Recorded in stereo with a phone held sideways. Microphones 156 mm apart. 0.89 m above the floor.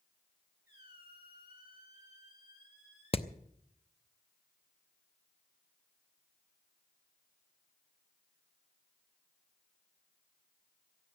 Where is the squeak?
90° left, 7 m.